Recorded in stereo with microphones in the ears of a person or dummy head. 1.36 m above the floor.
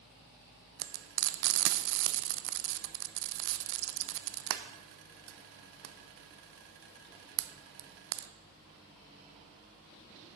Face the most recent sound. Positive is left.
turn(degrees=-65)  # may be behind; listen again after turning